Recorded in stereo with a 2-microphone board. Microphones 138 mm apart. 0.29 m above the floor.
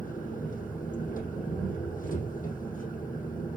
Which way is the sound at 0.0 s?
80° left.